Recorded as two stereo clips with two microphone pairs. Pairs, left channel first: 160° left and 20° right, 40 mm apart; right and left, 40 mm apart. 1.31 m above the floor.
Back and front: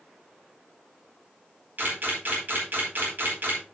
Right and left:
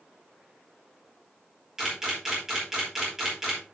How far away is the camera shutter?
About 4.5 m.